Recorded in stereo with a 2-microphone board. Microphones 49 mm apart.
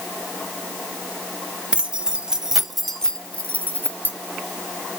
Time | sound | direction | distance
1.7 | keys jangling | 20° right (ahead or behind) | 1.4 m